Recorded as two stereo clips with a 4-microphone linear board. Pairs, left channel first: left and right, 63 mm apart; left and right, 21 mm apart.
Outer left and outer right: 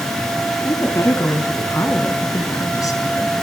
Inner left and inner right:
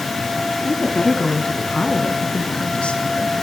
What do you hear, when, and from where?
0.7 s a woman speaking: 40° left (ahead or behind), 3 m; by 3.4 s 70° left (ahead or behind), 4 m